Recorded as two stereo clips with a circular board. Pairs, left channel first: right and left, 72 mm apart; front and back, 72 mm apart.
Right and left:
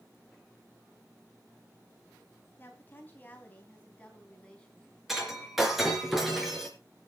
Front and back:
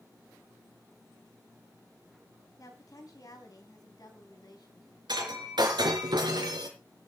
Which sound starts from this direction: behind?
Breaking glass, at 5.1 s.